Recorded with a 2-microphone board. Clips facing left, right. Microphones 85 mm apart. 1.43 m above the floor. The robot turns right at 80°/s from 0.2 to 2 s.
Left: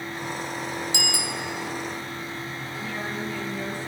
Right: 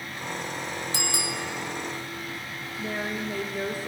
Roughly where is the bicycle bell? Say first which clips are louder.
Left 1 dB; ahead right.